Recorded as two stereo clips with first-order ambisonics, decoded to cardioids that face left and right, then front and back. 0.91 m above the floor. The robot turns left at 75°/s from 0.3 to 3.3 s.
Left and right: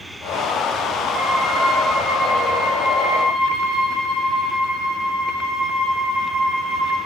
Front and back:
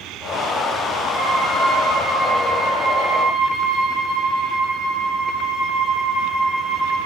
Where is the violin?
80° right, 0.6 m; by 7.0 s 115° left, 0.6 m.